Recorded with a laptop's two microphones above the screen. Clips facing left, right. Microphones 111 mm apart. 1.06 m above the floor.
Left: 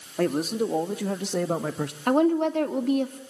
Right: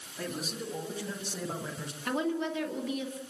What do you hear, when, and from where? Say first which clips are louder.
0.2 s a man speaking: left 13 dB; 65° left (ahead or behind), 2 m; by 2.0 s 70° left (ahead or behind), 1.1 m
2.1 s a woman speaking: left 10 dB; 55° left (ahead or behind), 2 m